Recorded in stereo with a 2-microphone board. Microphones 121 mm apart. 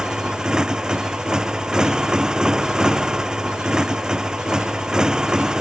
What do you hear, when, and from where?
0.0 s a motorcycle: 5° right (ahead or behind)